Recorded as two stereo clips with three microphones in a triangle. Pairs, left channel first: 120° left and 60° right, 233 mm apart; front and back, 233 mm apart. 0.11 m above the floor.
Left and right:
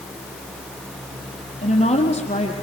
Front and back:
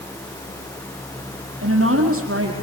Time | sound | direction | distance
1.6 | a woman speaking | straight behind | 4 m